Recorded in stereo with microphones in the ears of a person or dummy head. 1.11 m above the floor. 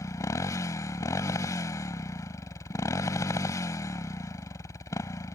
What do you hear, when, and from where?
0.0 s a motorcycle: 15° left (ahead or behind)